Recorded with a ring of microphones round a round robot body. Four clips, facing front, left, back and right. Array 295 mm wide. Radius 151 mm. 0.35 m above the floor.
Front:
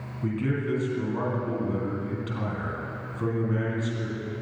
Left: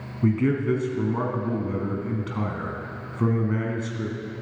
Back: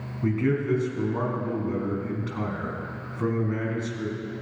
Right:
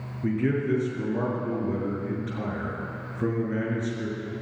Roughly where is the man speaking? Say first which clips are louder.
Left 3 dB, back 4 dB; left.